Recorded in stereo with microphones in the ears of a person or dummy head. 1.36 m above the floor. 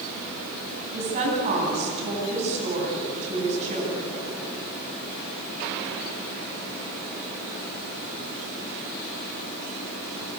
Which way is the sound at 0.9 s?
35° right (ahead or behind).